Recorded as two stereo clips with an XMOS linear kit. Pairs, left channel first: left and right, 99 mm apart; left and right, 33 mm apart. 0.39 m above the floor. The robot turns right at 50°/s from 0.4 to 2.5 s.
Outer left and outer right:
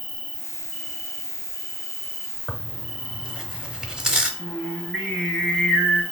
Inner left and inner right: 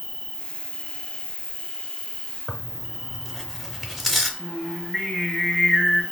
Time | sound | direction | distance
0.0 | an insect | 90° left | 1.4 m
2.5 | tearing paper | 5° right (ahead or behind) | 0.8 m
4.4 | singing | 10° left (ahead or behind) | 2 m